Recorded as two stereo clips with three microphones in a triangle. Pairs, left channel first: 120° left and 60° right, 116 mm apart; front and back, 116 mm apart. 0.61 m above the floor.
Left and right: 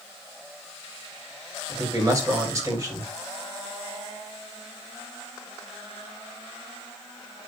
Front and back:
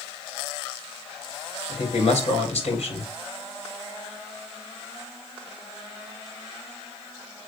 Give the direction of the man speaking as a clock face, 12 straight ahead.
12 o'clock.